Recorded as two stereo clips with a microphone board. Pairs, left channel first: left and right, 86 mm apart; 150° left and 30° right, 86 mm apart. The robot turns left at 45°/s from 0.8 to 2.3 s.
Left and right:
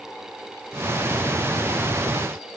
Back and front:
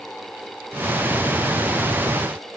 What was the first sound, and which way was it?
Only background noise.